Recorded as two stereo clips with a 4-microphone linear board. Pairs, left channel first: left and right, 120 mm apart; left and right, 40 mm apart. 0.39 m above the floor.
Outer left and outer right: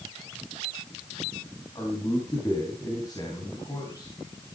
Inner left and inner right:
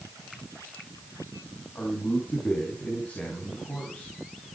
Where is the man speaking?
35° left (ahead or behind), 3.5 m.